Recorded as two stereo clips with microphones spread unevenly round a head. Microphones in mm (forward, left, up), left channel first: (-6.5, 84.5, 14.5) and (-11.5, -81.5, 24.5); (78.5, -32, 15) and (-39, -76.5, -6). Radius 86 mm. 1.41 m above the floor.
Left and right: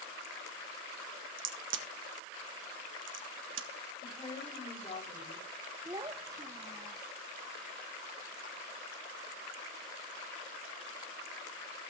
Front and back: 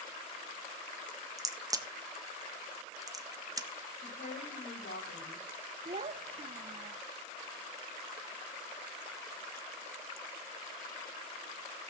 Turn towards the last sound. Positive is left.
turn(degrees=-145)